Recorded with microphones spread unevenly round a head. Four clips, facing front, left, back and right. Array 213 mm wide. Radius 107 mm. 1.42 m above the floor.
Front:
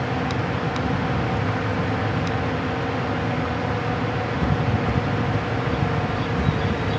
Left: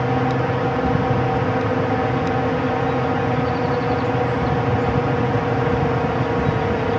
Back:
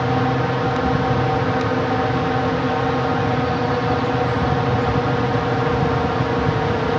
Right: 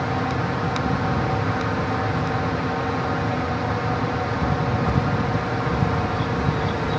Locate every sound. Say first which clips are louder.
0.0 s a drone: left 4 dB, back 6 dB; 135° left